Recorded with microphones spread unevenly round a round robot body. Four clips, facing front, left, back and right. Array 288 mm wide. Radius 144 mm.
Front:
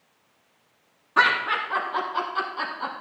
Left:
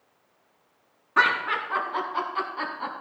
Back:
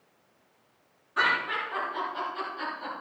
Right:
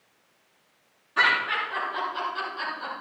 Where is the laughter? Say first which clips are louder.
Left 2 dB, front 6 dB; 40° left, 5 m; by 2.9 s 45° left, 4 m.